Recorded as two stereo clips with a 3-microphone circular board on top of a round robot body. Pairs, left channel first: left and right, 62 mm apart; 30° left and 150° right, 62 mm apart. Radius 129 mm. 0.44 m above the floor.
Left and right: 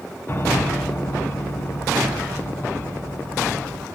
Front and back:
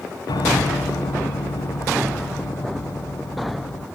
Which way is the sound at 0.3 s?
30° left.